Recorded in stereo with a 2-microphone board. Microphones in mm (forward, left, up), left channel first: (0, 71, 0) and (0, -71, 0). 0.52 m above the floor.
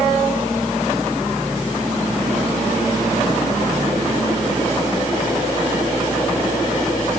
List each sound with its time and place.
Only background noise.